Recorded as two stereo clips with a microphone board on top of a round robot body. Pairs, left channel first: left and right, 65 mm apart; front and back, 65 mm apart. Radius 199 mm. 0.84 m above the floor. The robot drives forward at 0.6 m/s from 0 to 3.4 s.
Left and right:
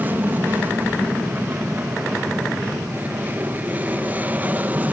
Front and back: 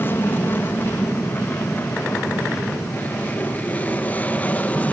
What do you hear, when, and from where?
0.0 s an aircraft: 40° right; by 4.9 s 50° right